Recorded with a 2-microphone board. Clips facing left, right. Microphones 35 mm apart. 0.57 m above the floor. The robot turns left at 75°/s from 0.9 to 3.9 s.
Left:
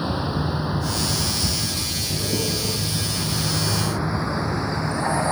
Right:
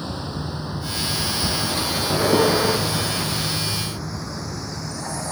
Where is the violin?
I don't hear a violin.